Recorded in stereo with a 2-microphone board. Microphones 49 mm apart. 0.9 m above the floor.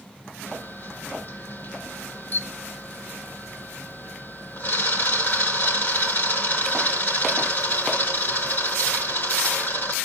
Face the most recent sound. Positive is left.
turn(degrees=50)  # may be behind; listen again after turning